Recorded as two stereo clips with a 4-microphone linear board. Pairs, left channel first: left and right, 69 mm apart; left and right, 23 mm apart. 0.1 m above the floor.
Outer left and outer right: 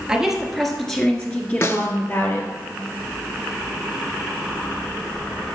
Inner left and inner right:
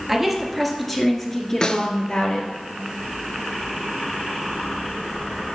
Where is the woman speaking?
10° right (ahead or behind), 1.7 m; by 2.5 s 45° left (ahead or behind), 1.7 m.